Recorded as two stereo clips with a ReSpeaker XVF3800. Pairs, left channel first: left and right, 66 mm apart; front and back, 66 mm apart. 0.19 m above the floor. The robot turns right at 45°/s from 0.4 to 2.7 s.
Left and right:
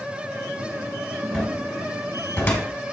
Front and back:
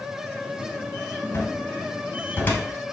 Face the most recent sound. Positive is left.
turn(degrees=50)